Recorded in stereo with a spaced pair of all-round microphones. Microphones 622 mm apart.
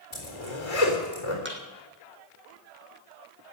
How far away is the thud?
About 2 m.